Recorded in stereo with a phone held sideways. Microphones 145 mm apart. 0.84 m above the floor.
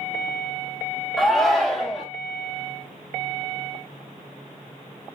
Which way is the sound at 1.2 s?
Centre (ahead or behind).